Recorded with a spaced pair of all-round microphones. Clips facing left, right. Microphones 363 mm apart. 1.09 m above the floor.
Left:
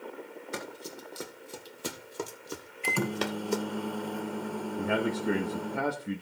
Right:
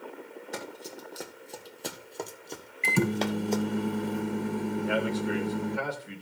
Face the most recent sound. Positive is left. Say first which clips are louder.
# left 2 dB
turn(degrees=60)  # may be behind; listen again after turning